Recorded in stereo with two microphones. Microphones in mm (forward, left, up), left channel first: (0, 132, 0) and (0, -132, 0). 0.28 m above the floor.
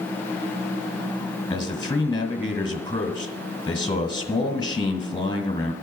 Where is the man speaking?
15° left (ahead or behind), 1.7 m.